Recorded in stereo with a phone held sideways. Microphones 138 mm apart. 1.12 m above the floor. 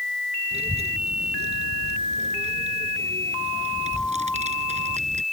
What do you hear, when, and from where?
0.5 s a child speaking: 50° right (ahead or behind); by 5.2 s 55° right (ahead or behind)